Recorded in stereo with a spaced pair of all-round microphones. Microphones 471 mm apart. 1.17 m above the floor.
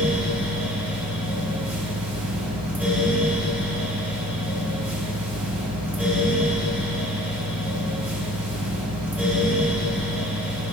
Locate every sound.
0.0 s a fan: 5° right (ahead or behind), 1.5 m